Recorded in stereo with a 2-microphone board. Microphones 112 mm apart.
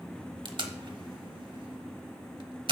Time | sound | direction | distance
0.5 | tape being pulled | 45° right (ahead or behind) | 1.0 m